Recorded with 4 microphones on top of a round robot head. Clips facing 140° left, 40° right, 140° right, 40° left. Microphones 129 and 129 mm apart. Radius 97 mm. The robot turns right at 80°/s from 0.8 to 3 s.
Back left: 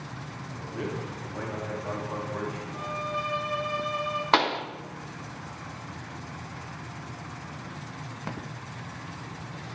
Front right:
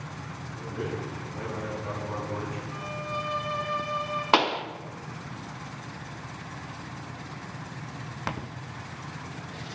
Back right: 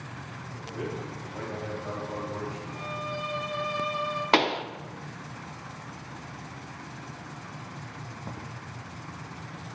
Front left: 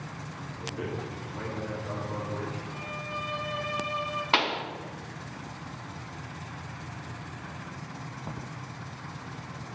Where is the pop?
115° right, 0.5 m.